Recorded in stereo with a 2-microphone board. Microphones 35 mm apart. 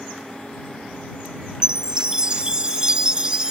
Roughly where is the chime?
Right.